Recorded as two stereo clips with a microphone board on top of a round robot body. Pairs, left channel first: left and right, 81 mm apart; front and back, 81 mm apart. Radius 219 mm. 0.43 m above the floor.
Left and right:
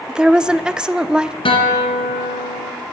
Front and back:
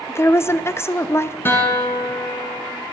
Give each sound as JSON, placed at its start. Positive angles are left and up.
{"t": 0.1, "sound": "a woman speaking", "azimuth_deg": -20, "distance_m": 0.7}
{"t": 1.4, "sound": "a guitar", "azimuth_deg": 70, "distance_m": 1.7}